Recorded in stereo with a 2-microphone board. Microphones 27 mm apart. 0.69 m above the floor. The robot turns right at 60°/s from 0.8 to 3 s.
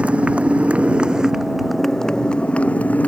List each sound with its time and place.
0.0 s a motorcycle: 50° right; by 3.1 s 80° left